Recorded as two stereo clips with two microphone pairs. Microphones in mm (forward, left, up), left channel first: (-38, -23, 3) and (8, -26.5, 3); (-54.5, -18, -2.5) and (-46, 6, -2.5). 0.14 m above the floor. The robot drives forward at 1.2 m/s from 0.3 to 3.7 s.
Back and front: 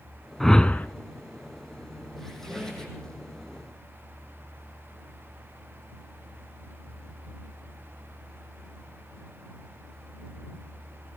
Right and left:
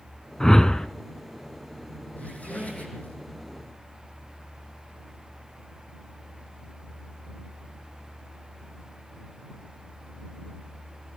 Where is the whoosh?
110° right, 0.7 m; by 0.9 s 155° right, 1.0 m.